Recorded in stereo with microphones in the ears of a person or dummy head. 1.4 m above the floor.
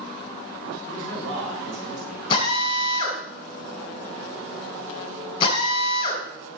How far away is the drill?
About 5 m.